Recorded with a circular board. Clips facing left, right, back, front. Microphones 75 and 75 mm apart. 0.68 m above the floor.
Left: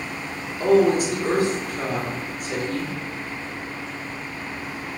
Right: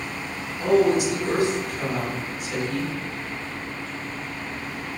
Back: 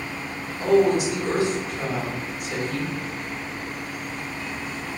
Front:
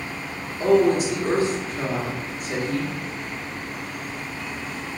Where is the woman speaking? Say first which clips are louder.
Left 2 dB, front 1 dB; 50° left, 1.3 m.